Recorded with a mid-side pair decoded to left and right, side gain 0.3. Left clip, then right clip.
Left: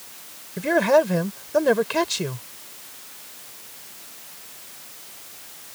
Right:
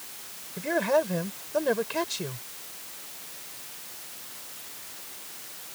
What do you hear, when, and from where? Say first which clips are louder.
0.6 s a man speaking: left 7 dB; 65° left